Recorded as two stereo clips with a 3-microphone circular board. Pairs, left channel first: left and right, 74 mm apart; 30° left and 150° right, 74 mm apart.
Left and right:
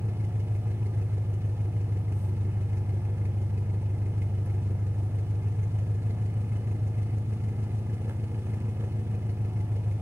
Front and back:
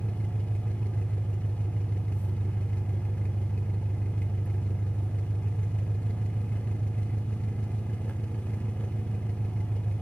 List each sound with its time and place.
0.0 s an engine running: 40° right, 1.3 m